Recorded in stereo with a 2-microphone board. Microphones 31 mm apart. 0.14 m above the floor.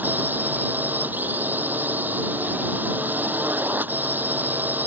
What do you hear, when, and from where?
0.0 s a drone: 75° right (ahead or behind)